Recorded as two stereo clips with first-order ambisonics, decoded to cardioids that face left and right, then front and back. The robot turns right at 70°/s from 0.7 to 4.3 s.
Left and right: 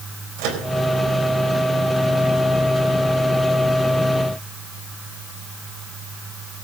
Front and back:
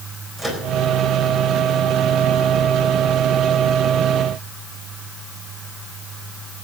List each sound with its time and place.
0.4 s a microwave: 105° right, 4 m